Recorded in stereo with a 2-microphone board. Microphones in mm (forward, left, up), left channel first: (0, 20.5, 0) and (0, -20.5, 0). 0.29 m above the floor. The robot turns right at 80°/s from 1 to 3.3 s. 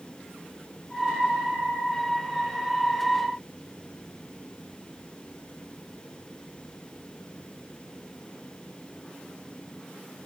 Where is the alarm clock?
I don't hear an alarm clock.